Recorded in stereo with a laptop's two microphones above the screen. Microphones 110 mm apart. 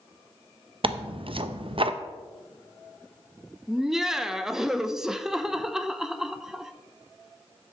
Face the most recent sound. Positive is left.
turn(degrees=-5)  # may be behind; listen again after turning